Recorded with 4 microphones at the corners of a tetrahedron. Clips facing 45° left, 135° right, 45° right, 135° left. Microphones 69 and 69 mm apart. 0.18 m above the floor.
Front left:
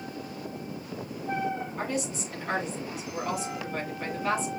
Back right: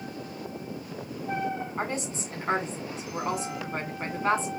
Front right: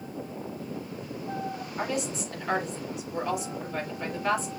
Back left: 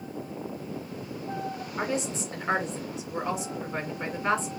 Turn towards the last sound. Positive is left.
turn(degrees=-175)